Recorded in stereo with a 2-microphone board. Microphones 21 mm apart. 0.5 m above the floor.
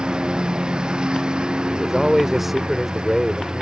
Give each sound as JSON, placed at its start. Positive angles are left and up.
{"t": 0.0, "sound": "a lawn mower", "side_deg": -40}
{"t": 1.7, "sound": "a man speaking", "side_deg": -10}